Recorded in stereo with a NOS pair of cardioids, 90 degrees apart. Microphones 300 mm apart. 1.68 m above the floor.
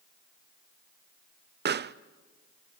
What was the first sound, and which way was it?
A pop, 35° right.